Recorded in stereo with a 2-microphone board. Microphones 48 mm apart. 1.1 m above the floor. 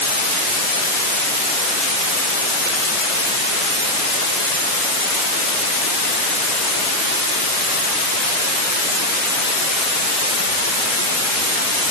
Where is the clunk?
I don't hear a clunk.